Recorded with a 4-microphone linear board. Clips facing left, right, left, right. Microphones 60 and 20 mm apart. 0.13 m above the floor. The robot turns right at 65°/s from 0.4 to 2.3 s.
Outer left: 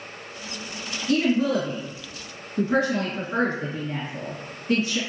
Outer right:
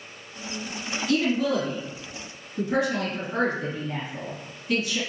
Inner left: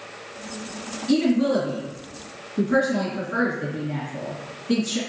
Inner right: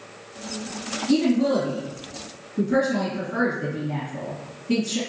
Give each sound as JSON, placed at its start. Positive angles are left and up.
{"t": 1.1, "sound": "a woman speaking", "side_deg": 25, "distance_m": 1.9}